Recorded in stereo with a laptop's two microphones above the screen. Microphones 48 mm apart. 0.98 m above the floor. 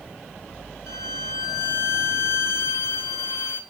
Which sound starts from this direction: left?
A violin, at 0.9 s.